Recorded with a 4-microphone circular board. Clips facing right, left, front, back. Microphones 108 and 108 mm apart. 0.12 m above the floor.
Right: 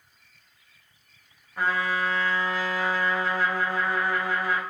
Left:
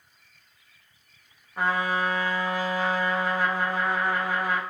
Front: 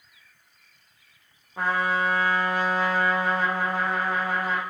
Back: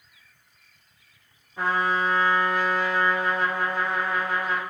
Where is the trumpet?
15° left, 1.4 m.